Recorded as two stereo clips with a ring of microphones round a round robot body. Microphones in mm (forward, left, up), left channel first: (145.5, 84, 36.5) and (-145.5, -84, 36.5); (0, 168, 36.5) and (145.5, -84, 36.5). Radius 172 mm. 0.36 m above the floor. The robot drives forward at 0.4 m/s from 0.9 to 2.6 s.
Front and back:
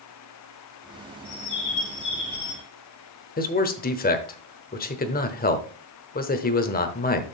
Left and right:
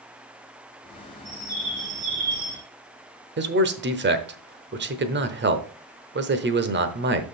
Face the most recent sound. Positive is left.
turn(degrees=-25)